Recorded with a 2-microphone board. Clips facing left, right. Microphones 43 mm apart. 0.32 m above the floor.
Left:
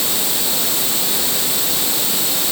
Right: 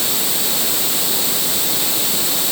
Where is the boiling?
I don't hear boiling.